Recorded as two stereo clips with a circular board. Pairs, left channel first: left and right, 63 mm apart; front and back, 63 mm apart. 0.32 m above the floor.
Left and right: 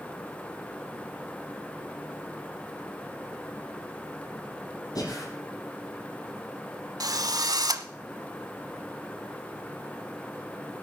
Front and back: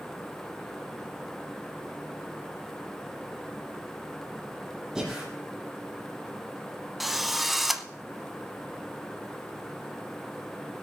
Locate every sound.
5.0 s breathing: 95° left, 6.5 m
7.0 s a drill: 90° right, 0.9 m